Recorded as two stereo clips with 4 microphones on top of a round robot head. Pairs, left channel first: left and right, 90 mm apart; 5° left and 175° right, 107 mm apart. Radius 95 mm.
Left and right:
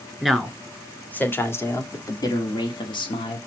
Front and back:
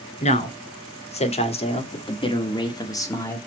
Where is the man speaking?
5° left, 2 m; by 3.4 s 70° left, 1.7 m.